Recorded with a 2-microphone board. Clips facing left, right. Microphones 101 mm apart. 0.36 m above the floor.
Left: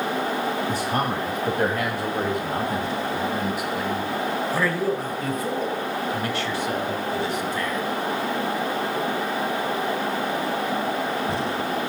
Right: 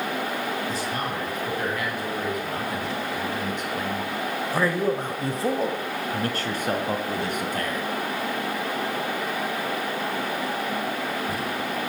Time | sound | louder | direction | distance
0.7 | a man speaking | left 4 dB | 55° left (ahead or behind) | 2.5 m